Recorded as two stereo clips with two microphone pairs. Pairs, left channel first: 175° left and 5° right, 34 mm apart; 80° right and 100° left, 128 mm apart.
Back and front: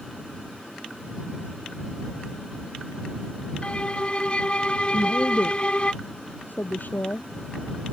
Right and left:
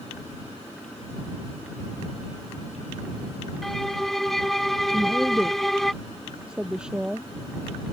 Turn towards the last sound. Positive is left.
turn(degrees=180)